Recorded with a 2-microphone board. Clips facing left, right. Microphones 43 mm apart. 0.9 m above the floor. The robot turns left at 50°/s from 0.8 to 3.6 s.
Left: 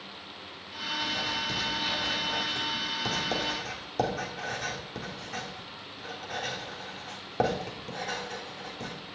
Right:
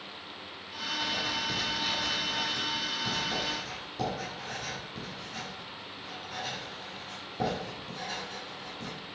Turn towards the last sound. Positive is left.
turn(degrees=75)  # may be behind; listen again after turning